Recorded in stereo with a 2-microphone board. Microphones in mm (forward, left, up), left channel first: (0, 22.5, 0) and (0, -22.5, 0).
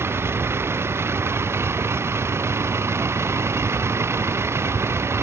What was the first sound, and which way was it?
A vehicle, 70° right (ahead or behind).